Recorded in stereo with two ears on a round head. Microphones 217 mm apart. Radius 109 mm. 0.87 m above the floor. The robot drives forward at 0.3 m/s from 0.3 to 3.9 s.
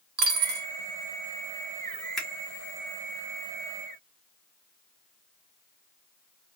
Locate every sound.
0.2 s a dropped coin: 40° right (ahead or behind), 0.9 m
2.2 s a finger snap: centre (ahead or behind), 1.0 m